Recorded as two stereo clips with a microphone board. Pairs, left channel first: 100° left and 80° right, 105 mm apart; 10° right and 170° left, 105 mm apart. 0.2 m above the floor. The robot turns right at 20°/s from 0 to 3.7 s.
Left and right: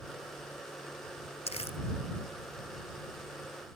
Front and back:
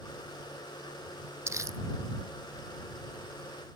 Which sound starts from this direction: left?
Crumpling, at 1.5 s.